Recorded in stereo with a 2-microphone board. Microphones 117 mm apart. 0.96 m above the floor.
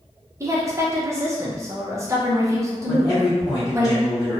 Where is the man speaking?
35° left (ahead or behind), 0.9 m.